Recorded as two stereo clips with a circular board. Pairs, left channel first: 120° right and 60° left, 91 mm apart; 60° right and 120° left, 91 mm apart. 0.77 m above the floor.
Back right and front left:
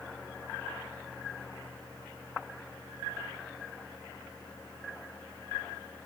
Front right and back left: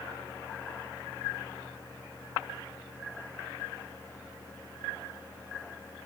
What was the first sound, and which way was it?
Only background noise.